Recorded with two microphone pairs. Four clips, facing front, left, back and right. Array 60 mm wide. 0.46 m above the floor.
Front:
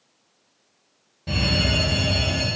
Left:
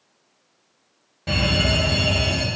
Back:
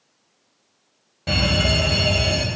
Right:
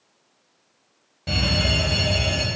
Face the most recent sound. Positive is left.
turn(degrees=170)